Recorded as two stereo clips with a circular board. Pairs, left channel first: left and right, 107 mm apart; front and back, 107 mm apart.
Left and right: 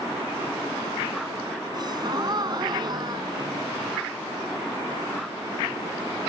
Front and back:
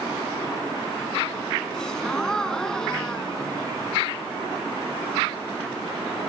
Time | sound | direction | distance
1.7 | a gasp | 80° right | 2 m